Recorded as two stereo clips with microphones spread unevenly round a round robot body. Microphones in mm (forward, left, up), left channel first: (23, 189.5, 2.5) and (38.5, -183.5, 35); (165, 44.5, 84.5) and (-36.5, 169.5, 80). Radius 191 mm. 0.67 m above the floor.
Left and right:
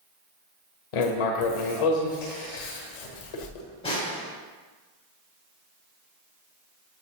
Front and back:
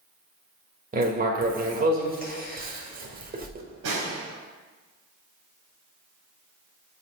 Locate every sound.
0.9 s writing: 90° left, 1.2 m
3.8 s a snare drum: 165° left, 1.6 m